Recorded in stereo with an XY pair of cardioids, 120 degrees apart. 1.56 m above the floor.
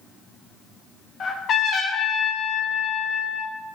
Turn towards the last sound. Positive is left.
turn(degrees=45)